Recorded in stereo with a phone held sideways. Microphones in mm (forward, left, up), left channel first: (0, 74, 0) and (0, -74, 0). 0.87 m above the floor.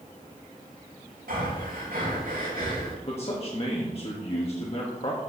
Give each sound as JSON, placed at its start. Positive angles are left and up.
{"t": 1.3, "sound": "breathing", "side_deg": -85, "distance_m": 4.0}
{"t": 3.0, "sound": "a man speaking", "side_deg": 40, "distance_m": 1.6}